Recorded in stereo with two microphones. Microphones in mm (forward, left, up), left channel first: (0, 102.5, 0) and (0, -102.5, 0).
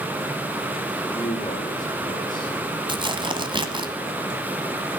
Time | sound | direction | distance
1.1 | a man speaking | 20° left (ahead or behind) | 6 m
2.9 | tearing paper | 25° right (ahead or behind) | 1.4 m